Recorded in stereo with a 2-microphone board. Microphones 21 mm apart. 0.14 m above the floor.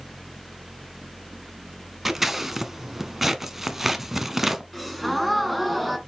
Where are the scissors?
15° right (ahead or behind), 1.1 m.